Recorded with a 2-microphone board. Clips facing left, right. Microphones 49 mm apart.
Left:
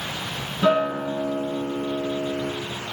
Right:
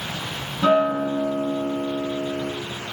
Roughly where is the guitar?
Centre.